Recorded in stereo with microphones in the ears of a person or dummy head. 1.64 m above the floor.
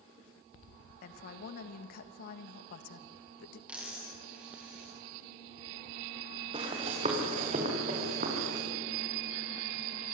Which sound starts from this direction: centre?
A dropped coin, at 3.7 s.